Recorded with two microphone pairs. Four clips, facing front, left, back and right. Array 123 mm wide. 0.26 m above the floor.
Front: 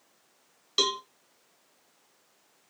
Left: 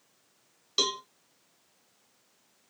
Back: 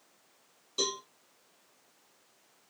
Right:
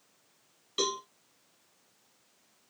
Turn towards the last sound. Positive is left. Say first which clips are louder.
# even, front 5 dB
turn(degrees=20)